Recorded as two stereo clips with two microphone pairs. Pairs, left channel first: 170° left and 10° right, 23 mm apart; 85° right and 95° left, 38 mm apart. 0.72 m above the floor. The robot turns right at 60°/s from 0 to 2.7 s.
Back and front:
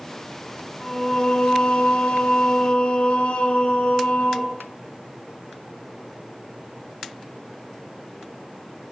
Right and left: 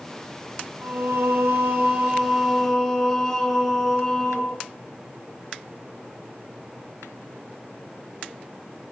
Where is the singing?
80° left, 6 m; by 4.5 s 165° right, 6 m.